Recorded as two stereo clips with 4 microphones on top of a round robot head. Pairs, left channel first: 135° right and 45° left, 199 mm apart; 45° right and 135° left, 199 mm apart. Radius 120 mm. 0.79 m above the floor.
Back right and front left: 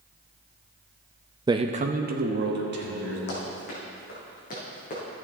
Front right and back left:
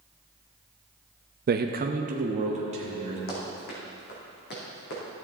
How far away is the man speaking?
About 0.6 m.